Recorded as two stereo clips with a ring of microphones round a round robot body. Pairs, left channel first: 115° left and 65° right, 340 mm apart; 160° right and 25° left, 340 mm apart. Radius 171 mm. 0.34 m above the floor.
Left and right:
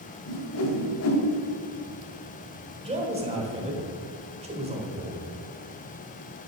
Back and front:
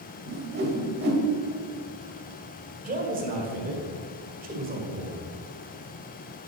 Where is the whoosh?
75° left, 1.8 m.